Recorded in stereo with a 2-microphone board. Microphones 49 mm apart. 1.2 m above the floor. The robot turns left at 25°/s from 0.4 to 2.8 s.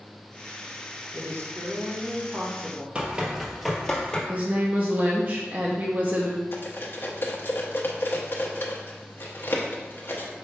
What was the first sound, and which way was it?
A woman speaking, 110° right.